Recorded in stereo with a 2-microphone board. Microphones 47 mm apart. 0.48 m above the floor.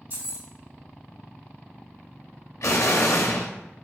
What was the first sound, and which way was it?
Keys jangling, 55° right (ahead or behind).